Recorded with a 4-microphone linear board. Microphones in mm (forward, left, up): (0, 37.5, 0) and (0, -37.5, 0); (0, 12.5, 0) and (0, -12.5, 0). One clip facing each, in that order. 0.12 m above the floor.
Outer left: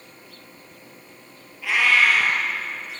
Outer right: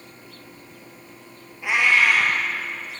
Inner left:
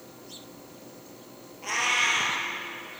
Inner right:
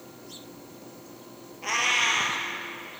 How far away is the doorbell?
I don't hear a doorbell.